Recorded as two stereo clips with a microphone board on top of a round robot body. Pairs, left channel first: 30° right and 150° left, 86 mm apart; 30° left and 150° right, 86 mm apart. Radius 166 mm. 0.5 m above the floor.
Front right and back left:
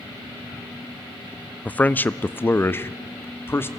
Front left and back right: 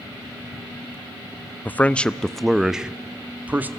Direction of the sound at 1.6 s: 10° left.